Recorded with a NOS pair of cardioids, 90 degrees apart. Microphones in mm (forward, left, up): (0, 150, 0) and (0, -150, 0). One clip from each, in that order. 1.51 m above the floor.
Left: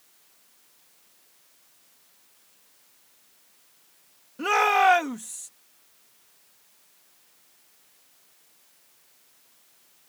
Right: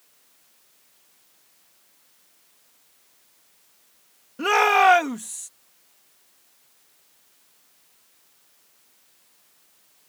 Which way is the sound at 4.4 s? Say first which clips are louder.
Right 3 dB; 25° right.